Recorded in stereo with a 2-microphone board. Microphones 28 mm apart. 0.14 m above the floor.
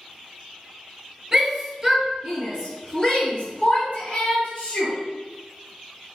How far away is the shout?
About 1.8 m.